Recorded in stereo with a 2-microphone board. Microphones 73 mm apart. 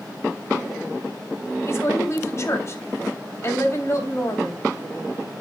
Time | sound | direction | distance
1.6 | a woman speaking | 40° left (ahead or behind) | 3 m